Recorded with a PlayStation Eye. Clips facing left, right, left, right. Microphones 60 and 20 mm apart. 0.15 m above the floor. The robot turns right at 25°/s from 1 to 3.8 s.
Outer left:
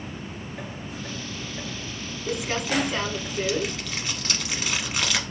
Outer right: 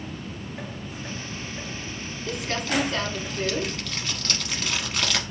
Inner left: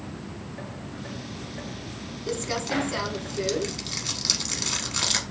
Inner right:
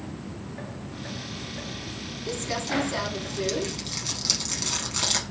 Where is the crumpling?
15° left (ahead or behind), 0.9 m; by 5.2 s 5° left (ahead or behind), 0.9 m.